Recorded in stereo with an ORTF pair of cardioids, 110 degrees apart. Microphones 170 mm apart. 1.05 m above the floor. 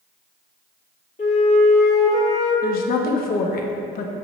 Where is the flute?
40° left, 1.8 m.